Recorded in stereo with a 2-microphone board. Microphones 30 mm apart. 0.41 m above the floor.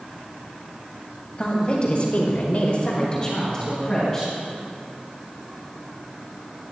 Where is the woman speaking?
30° left (ahead or behind), 2.0 m; by 4.3 s 10° left (ahead or behind), 3 m.